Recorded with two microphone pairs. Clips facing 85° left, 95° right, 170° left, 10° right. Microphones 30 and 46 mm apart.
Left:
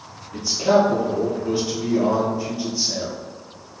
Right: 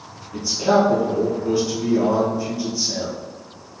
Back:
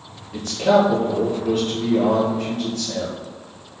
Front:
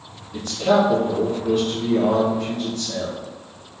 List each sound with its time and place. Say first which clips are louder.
0.3 s a man speaking: even, back 2 dB; 160° left, 1.9 m